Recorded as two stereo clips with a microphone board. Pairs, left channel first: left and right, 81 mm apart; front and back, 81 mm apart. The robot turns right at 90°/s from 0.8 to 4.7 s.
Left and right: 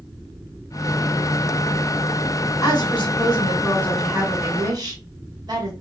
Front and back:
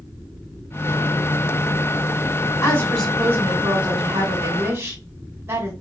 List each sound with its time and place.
2.6 s a woman speaking: 45° left, 1.9 m; by 5.7 s 125° right, 1.9 m